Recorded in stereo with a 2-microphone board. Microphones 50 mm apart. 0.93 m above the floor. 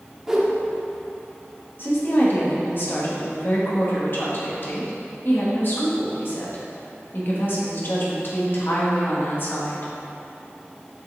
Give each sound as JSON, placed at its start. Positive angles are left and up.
{"t": 0.3, "sound": "a whoosh", "side_deg": -10, "distance_m": 1.0}
{"t": 1.8, "sound": "a woman speaking", "side_deg": 55, "distance_m": 1.6}